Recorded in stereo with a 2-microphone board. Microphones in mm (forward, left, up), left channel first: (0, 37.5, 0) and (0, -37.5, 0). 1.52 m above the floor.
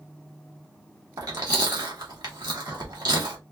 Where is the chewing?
60° right (ahead or behind), 1.5 m.